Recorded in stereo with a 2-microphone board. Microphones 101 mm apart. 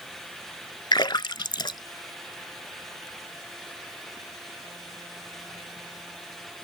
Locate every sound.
0.9 s a splash: 50° left (ahead or behind)